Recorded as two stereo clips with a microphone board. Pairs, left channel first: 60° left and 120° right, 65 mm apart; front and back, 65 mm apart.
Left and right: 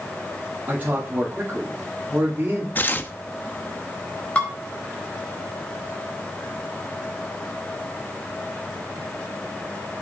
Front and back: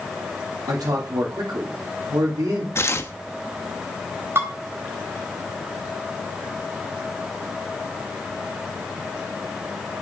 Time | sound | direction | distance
0.7 | a man speaking | 175° left | 3 m
2.8 | tearing paper | 20° left | 0.8 m
4.3 | dishes clattering | 130° left | 4 m